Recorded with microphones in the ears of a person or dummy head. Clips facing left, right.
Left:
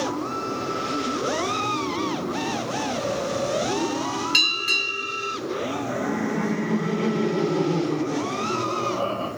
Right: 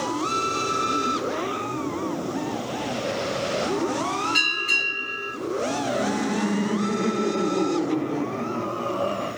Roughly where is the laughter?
Left.